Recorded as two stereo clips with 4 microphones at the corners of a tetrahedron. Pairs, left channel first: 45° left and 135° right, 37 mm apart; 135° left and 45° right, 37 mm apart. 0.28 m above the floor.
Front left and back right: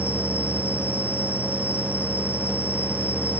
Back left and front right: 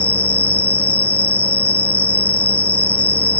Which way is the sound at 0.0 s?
Straight behind.